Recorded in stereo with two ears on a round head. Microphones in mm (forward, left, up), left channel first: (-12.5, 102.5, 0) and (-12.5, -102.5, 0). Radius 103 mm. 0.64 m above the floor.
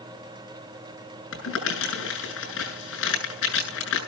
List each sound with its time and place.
1.3 s crumpling: 55° left (ahead or behind), 7 m